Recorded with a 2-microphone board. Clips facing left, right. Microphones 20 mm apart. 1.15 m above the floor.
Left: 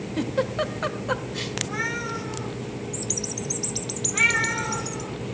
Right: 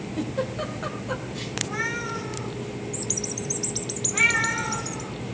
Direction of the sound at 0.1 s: 30° left (ahead or behind).